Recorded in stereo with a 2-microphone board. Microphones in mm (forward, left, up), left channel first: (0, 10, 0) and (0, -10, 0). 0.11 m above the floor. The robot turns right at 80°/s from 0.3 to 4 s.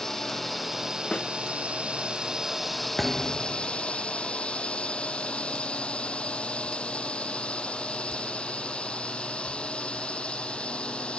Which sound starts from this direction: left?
A snare drum, at 1.1 s.